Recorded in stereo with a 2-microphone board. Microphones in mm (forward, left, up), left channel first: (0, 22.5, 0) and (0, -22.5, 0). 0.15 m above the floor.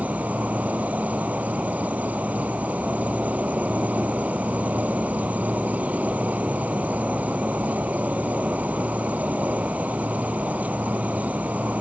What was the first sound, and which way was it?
An insect, 35° right (ahead or behind).